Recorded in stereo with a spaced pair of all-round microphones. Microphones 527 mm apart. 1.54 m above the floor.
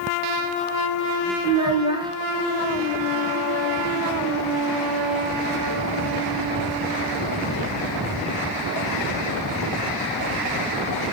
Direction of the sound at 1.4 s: 10° right (ahead or behind).